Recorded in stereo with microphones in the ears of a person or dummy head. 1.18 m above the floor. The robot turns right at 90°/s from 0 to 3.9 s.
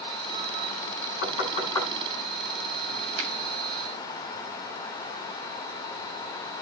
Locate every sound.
1.2 s knocking: 75° left (ahead or behind), 9 m; by 1.9 s 15° left (ahead or behind), 9 m
3.2 s a finger snap: 80° right, 9.5 m; by 3.3 s 65° right (ahead or behind), 9.5 m